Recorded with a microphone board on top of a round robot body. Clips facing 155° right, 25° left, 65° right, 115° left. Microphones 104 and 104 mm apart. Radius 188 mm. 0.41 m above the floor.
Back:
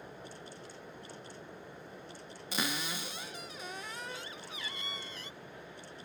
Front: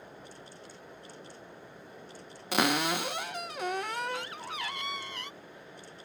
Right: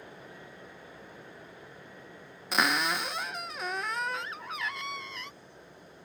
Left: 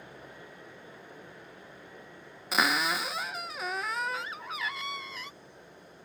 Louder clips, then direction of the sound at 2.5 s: Front 10 dB, even; 25° left.